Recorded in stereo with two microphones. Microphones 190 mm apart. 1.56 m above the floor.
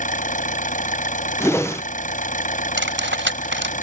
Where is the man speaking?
I don't hear a man speaking.